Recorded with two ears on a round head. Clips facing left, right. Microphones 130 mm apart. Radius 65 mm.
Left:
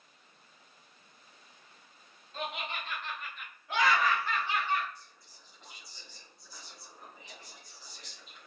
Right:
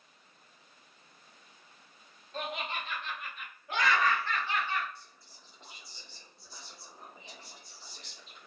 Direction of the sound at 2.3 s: 40° right (ahead or behind).